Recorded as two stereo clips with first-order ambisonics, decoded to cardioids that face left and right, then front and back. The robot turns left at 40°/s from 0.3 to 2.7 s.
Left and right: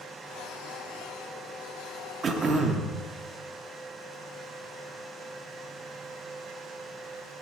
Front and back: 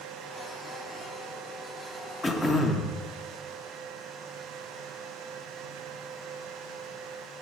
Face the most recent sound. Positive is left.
turn(degrees=-90)